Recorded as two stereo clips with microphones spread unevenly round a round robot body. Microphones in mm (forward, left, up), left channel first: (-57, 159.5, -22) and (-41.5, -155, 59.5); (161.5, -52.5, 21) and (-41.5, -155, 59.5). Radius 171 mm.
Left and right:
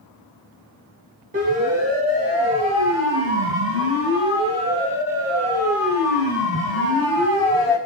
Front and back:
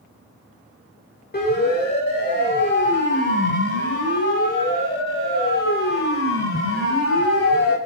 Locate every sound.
1.3 s a siren: 15° right, 7.5 m; by 7.8 s 15° left, 5.5 m